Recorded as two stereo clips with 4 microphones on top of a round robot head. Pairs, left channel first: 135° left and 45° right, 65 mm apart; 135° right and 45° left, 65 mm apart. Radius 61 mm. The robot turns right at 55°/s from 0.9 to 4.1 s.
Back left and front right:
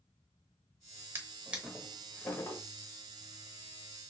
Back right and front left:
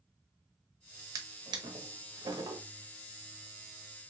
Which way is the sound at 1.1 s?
10° left.